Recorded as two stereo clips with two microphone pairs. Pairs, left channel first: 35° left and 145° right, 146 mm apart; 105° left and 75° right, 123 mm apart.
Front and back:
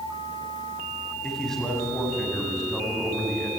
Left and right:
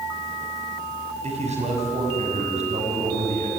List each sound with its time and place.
1.2 s a man speaking: 55° right, 6 m